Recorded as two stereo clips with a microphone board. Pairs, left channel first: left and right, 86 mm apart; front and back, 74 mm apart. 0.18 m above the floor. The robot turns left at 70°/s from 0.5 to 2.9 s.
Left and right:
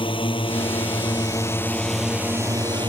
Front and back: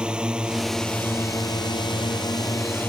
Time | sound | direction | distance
0.0 | a drone | 100° left | ?